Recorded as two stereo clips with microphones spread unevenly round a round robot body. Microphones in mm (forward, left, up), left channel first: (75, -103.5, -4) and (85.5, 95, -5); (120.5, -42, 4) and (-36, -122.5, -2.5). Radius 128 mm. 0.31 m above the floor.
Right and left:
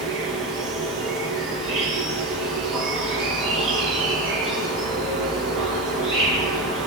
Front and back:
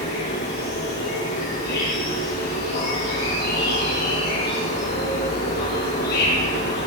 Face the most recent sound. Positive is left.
turn(degrees=65)